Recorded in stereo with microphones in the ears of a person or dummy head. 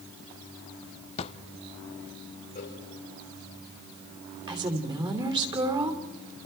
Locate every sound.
1.2 s a drawer: 35° left (ahead or behind), 0.9 m
2.5 s a cowbell: 50° left (ahead or behind), 4.5 m
4.5 s a woman speaking: 25° right (ahead or behind), 3 m